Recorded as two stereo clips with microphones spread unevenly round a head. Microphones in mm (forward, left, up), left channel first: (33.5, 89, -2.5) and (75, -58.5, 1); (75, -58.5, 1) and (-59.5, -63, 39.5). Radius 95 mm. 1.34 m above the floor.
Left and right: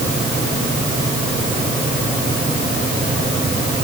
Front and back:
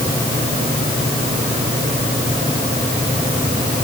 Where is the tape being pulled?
I don't hear tape being pulled.